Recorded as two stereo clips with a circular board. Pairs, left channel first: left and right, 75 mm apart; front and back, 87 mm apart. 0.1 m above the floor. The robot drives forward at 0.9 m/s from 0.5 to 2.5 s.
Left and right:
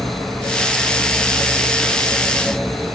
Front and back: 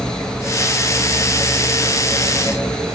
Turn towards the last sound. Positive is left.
No sound to turn to.